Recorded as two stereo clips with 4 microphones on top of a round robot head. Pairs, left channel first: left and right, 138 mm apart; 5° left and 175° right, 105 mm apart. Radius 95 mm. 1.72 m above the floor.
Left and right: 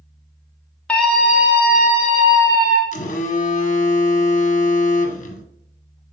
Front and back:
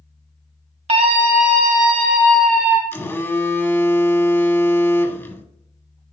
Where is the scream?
175° left, 1.1 m; by 2.8 s 150° right, 2.5 m.